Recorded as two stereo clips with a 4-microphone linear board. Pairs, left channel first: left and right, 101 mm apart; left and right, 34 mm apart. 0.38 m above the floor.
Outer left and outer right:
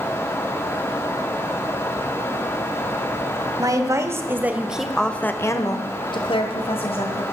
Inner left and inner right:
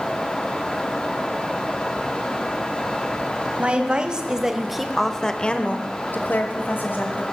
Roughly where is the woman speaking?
Right.